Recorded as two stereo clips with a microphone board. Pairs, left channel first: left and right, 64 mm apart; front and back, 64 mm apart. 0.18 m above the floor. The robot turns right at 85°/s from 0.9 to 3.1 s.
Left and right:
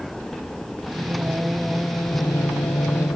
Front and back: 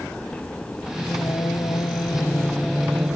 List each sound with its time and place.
1.0 s singing: 60° right; by 3.2 s 120° left